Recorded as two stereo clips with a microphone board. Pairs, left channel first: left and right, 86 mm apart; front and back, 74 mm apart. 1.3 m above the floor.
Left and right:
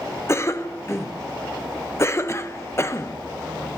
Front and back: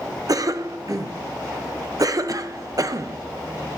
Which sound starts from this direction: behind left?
A cough, at 0.3 s.